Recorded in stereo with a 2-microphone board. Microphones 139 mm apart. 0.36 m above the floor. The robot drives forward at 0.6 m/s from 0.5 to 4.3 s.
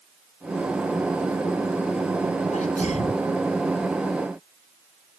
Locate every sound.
2.5 s a sneeze: 70° left (ahead or behind); by 3.3 s 60° left (ahead or behind)